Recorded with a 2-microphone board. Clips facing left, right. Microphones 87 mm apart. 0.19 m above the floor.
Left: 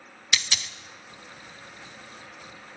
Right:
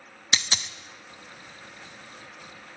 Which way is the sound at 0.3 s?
30° right (ahead or behind).